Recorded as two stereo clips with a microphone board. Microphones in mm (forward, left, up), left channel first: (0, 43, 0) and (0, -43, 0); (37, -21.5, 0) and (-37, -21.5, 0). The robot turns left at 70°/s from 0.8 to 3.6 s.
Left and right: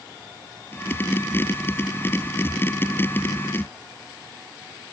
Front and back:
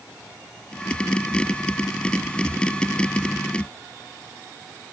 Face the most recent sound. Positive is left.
No sound to turn to.